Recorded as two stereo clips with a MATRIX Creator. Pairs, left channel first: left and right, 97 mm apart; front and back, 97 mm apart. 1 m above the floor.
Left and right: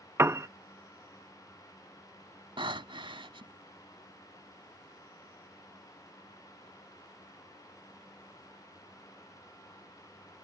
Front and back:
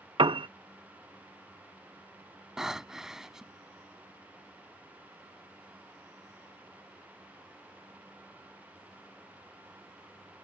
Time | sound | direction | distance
0.2 | a piano | 150° right | ?
2.6 | breathing | 95° right | ?